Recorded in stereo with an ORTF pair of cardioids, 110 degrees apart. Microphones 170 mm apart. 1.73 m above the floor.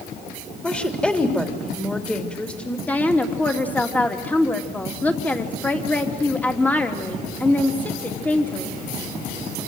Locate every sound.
0.6 s a woman speaking: 5° left, 3.5 m
2.9 s a woman speaking: 10° left, 3 m